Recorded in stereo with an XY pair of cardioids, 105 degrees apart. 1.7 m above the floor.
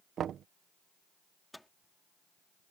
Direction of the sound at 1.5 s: 5° left.